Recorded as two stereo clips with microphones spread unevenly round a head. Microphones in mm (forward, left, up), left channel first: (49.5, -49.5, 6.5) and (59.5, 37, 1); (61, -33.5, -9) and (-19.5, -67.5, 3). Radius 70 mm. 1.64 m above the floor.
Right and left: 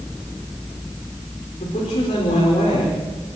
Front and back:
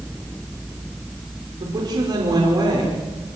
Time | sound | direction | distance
1.6 | a woman speaking | 125° right | 5.5 m